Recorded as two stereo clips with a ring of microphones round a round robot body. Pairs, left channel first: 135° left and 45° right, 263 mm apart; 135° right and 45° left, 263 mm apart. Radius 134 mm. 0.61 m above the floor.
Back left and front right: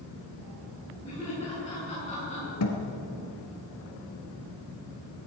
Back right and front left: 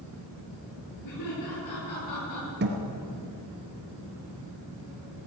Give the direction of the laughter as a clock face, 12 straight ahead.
5 o'clock.